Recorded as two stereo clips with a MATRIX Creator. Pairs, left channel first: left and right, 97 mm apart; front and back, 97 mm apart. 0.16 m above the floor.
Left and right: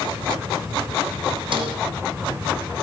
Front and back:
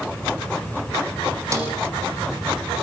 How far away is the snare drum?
About 6 m.